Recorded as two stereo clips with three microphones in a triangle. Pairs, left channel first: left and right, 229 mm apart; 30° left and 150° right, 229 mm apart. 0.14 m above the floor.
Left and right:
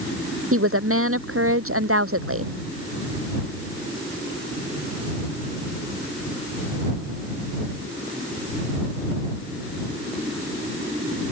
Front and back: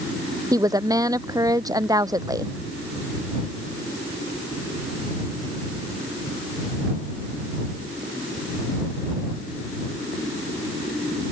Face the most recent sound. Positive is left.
turn(degrees=-75)